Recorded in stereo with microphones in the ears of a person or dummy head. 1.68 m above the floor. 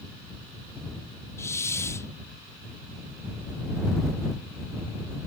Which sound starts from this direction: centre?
A hiss, at 1.4 s.